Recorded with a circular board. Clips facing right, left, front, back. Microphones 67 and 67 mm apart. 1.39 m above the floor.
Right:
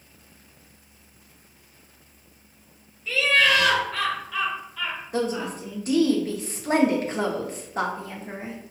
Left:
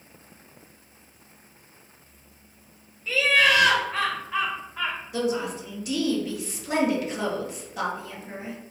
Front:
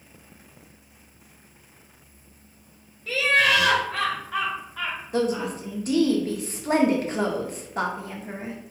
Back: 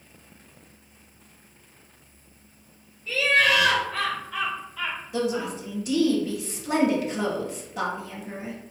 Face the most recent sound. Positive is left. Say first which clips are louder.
# right 1 dB, front 3 dB
turn(degrees=-45)